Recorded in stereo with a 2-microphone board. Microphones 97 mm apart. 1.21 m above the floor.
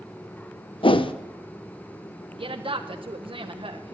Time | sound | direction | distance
0.8 | a whoosh | 60° left (ahead or behind) | 0.6 m
2.3 | a woman speaking | 60° right (ahead or behind) | 0.9 m